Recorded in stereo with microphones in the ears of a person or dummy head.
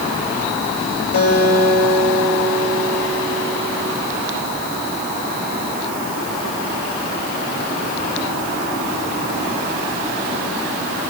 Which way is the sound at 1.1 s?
80° left.